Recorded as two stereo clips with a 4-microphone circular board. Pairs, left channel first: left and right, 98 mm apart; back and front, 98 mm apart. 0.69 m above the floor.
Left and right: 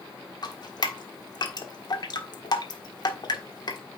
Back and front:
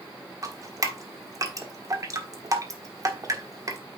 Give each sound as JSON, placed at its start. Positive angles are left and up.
{"t": 0.4, "sound": "dripping", "azimuth_deg": 50, "distance_m": 1.4}